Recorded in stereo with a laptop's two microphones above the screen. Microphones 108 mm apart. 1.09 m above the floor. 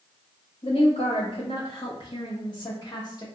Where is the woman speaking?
65° left (ahead or behind), 1.4 m; by 3.2 s 40° left (ahead or behind), 1.6 m.